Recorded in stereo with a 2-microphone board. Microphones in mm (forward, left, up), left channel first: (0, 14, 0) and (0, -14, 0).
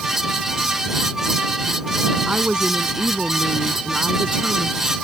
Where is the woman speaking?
35° right (ahead or behind).